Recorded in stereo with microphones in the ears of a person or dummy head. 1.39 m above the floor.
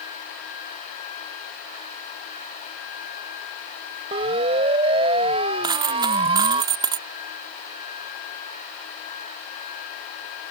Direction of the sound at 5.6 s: 25° right (ahead or behind).